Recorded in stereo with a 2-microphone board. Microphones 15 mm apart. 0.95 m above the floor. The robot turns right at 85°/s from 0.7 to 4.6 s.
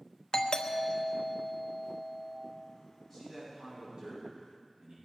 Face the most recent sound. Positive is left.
turn(degrees=-65)